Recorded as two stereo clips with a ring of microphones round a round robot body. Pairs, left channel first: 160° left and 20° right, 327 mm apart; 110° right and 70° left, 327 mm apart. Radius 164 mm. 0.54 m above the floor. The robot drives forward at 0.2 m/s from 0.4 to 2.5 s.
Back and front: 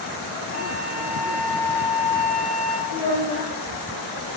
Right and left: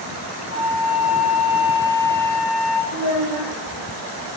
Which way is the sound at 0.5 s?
80° right.